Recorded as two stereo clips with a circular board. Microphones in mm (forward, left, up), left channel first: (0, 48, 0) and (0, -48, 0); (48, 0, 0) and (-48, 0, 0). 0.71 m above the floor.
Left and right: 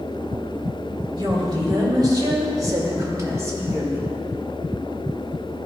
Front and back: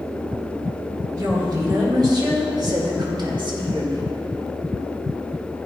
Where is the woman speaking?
130° right, 3 m; by 4.1 s 160° right, 1.7 m.